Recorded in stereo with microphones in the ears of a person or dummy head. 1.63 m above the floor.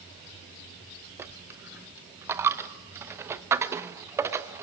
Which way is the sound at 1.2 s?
15° right (ahead or behind).